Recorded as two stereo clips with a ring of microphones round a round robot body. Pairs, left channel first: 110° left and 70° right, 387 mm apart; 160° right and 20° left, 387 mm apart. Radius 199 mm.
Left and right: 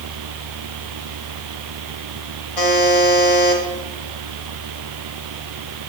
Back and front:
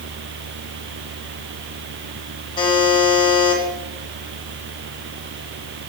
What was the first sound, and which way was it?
A buzzer, 125° left.